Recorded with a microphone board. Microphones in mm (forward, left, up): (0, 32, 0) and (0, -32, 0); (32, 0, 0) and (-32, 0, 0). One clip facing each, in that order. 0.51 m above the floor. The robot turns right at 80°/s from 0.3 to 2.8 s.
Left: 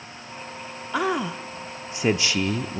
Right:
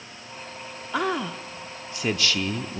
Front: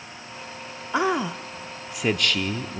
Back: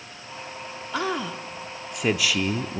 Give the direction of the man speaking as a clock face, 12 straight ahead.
12 o'clock.